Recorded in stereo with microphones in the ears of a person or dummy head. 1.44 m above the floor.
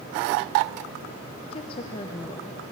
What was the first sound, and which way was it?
A woman speaking, 35° left (ahead or behind).